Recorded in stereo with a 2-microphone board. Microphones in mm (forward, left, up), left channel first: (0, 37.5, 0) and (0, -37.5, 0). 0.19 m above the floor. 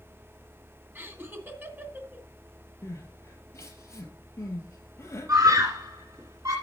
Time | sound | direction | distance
0.9 | laughter | 30° right (ahead or behind) | 1.9 m
2.8 | crying | 35° left (ahead or behind) | 3 m
5.3 | a scream | 45° right (ahead or behind) | 2.5 m